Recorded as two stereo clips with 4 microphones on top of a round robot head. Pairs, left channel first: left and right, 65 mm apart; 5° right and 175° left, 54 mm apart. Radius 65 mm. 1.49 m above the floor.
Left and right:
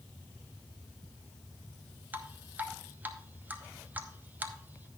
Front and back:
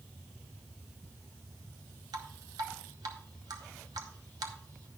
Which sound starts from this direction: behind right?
Dripping, at 2.1 s.